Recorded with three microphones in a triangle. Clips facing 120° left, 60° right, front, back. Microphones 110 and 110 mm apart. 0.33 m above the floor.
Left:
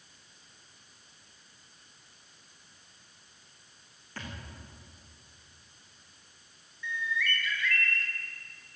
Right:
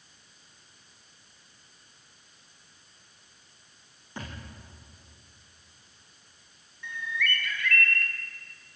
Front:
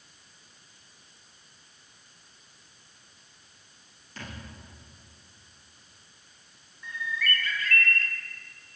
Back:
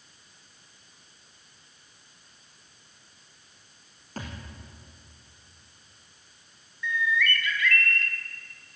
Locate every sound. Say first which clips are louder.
4.2 s a thud: right 2 dB, back 4 dB; 130° right, 6.5 m
6.8 s a bird: even, back 6 dB; 45° right, 3 m